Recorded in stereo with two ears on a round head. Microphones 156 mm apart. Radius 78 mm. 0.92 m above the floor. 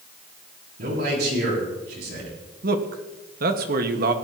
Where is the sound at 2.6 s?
55° right (ahead or behind), 1.4 m.